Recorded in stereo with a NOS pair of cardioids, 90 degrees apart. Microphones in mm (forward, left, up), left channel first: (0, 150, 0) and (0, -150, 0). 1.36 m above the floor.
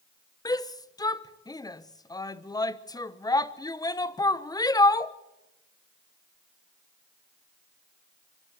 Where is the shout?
15° left, 1.1 m.